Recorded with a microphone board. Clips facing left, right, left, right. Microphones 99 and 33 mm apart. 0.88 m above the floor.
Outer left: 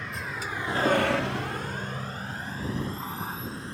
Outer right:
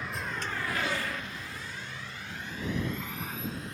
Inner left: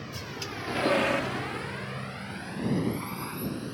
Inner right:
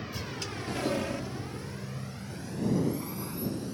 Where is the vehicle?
5° right (ahead or behind); by 3.7 s 30° left (ahead or behind).